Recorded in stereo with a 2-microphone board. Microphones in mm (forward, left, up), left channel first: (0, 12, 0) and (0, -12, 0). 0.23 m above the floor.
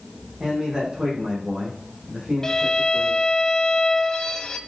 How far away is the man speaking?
About 8.5 m.